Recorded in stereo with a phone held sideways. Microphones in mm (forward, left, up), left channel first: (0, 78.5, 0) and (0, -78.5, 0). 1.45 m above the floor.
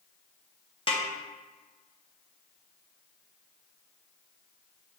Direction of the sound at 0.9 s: 40° left (ahead or behind).